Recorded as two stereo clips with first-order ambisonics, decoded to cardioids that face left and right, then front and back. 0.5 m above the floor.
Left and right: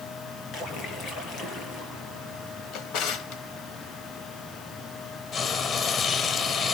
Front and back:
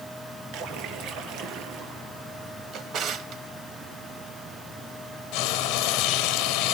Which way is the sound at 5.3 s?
30° left.